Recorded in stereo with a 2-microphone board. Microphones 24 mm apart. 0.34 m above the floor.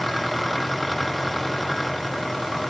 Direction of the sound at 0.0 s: Centre (ahead or behind).